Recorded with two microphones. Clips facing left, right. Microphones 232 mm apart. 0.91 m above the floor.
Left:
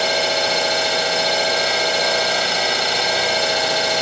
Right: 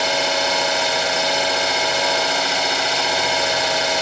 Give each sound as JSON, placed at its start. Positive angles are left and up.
{"t": 0.0, "sound": "an engine running", "side_deg": 35, "distance_m": 1.5}